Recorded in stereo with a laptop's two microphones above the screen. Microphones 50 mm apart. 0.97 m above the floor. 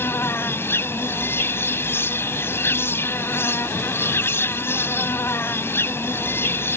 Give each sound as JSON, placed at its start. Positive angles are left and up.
{"t": 0.0, "sound": "an insect", "side_deg": 45}